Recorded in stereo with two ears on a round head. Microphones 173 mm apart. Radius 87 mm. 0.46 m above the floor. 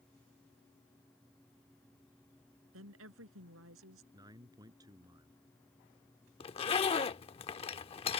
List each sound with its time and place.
2.7 s a woman speaking: 80° right
4.1 s a man speaking: 20° right (ahead or behind)
6.4 s a zipper: 30° left (ahead or behind)